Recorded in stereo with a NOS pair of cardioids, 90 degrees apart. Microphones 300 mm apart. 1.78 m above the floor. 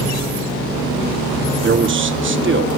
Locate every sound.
1.6 s a man speaking: 40° right, 1.3 m